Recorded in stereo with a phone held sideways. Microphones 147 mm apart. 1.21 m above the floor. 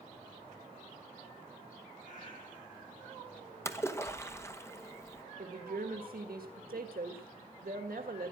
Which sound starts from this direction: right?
A woman speaking, at 5.4 s.